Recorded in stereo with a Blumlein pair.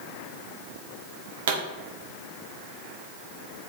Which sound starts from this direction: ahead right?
A pop, at 1.5 s.